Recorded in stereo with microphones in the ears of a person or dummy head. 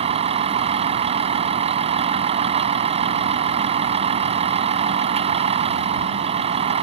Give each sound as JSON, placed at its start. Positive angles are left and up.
{"t": 0.0, "sound": "a vehicle", "side_deg": -35}